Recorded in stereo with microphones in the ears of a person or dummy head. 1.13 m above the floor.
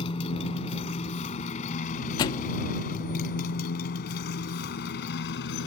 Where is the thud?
25° left (ahead or behind).